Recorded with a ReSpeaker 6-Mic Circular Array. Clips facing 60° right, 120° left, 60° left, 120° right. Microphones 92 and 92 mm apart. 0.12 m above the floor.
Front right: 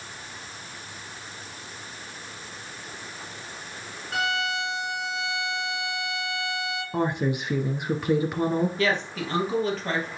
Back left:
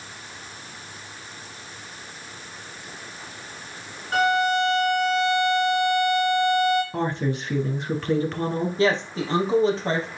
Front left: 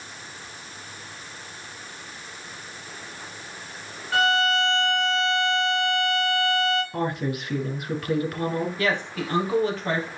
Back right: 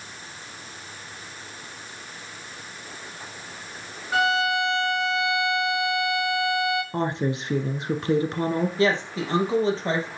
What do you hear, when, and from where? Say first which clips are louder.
4.1 s a violin: back left 7 dB, front left 1 dB; 165° left, 5.5 m
6.9 s a woman speaking: even, back right 1 dB; 120° right, 1.4 m
8.8 s a woman speaking: back left 4 dB, back right 3 dB; straight behind, 3 m